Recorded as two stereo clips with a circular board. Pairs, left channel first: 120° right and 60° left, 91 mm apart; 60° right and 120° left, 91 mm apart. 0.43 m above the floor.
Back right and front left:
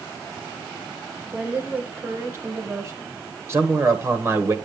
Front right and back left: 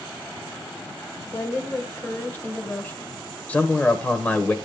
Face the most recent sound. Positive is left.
turn(degrees=10)